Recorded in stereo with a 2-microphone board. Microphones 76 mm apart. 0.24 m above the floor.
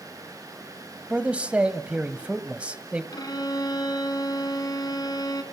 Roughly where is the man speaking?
Centre.